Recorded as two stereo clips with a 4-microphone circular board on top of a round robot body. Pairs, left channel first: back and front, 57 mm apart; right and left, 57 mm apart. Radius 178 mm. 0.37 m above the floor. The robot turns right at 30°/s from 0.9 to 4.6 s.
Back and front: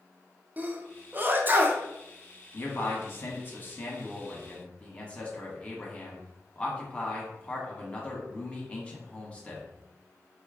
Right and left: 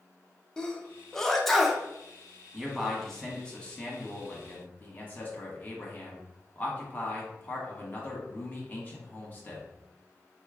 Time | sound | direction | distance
0.6 | a sneeze | 20° right | 1.0 m
2.5 | a man speaking | 175° left | 1.6 m